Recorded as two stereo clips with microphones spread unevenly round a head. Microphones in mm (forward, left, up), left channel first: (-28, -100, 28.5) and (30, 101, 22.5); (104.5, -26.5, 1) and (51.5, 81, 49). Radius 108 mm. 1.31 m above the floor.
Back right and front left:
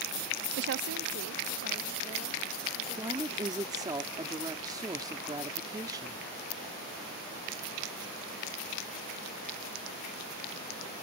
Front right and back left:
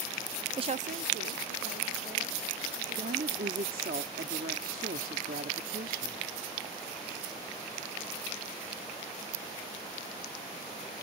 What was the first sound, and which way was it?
A woman speaking, 50° left.